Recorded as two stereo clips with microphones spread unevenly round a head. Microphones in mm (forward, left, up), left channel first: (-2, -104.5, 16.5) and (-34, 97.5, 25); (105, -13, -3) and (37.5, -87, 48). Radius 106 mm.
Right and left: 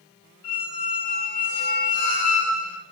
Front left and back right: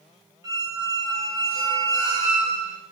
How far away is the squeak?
About 2.0 m.